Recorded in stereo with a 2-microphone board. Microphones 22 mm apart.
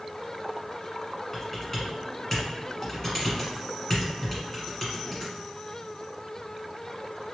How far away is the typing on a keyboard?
About 1.4 m.